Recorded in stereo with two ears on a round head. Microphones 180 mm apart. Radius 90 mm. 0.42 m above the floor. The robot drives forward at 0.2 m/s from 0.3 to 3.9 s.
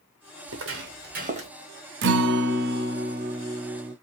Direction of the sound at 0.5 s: 70° right (ahead or behind).